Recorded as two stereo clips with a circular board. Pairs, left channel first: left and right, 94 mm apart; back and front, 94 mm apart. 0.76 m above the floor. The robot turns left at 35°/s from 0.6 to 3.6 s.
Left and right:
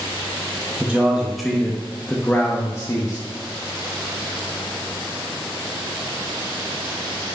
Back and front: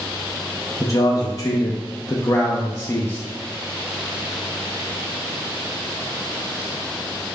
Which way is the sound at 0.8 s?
160° right.